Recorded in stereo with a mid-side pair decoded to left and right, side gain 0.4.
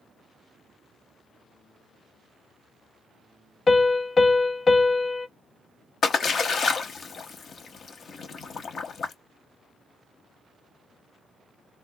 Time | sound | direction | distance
3.7 | a piano | 40° left | 0.5 m
6.0 | a splash | 55° left | 0.9 m